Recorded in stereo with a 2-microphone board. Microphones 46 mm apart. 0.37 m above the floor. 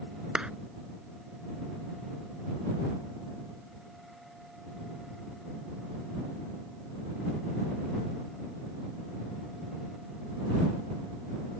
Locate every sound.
0.3 s a clap: 15° right (ahead or behind)